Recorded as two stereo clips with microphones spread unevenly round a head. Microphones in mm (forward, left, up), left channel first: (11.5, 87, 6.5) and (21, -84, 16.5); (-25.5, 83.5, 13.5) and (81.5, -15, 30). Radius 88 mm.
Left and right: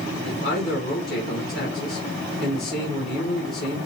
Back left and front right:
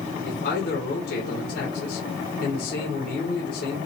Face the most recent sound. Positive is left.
turn(degrees=140)